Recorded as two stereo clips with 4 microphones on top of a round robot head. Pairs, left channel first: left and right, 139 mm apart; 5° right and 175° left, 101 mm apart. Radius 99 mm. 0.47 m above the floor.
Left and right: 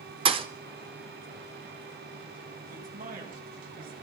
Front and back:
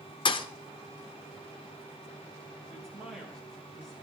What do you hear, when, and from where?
0.2 s a thud: 40° right, 0.6 m
2.7 s a man speaking: 90° right, 3 m